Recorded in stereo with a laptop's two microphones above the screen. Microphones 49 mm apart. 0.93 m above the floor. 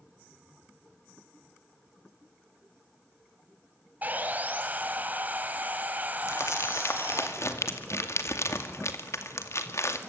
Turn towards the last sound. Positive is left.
turn(degrees=65)  # may be behind; listen again after turning